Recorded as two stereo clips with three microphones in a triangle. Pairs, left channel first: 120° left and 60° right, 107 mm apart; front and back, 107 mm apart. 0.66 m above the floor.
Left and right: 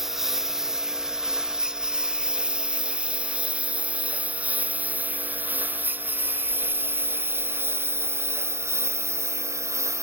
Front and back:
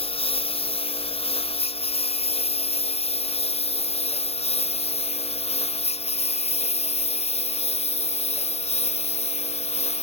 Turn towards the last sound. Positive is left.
turn(degrees=5)